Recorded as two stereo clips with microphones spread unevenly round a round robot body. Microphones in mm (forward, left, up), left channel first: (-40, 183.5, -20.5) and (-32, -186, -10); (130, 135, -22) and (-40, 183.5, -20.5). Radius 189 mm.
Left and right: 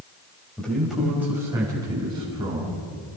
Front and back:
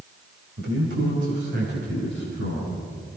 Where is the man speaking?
Straight behind, 5 m; by 2.8 s 160° right, 7 m.